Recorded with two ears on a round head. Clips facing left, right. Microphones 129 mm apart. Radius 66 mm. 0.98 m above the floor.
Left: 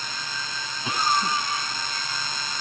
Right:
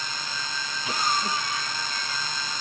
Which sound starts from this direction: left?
A cough, at 0.8 s.